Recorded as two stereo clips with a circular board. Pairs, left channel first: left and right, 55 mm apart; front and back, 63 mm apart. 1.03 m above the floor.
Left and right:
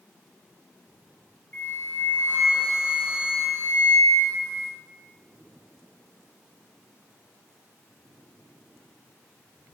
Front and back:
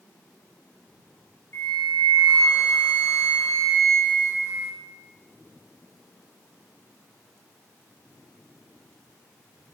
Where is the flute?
40° left, 0.9 m.